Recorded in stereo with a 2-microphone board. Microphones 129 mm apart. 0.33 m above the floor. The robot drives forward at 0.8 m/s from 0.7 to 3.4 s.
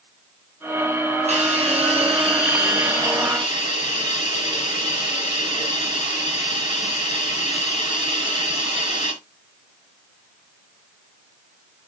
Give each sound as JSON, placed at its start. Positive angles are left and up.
{"t": 1.3, "sound": "a hiss", "side_deg": -60, "distance_m": 2.5}